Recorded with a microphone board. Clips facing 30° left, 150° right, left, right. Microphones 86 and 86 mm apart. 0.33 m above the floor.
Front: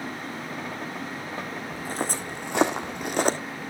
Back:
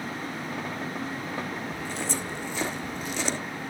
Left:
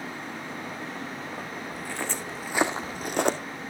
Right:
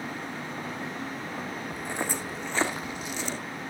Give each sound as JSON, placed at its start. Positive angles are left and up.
{"t": 1.7, "sound": "footsteps", "azimuth_deg": -25, "distance_m": 1.7}